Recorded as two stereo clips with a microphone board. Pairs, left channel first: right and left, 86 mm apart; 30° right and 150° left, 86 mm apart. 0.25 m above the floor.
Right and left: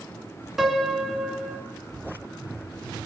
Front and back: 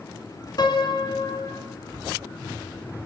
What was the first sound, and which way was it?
A piano, 5° left.